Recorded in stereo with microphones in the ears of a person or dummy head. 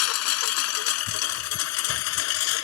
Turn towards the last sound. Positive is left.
turn(degrees=70)  # may be behind; listen again after turning